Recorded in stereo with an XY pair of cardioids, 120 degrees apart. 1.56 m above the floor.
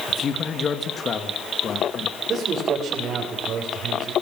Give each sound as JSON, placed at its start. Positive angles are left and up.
{"t": 0.1, "sound": "a man speaking", "azimuth_deg": 40, "distance_m": 2.5}
{"t": 2.3, "sound": "a man speaking", "azimuth_deg": -45, "distance_m": 7.0}